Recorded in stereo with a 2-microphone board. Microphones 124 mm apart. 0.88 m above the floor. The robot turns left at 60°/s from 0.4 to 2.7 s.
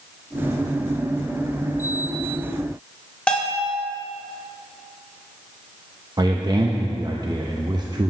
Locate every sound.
3.3 s a bell: 10° left (ahead or behind), 1.2 m
6.2 s a man speaking: 35° right (ahead or behind), 0.5 m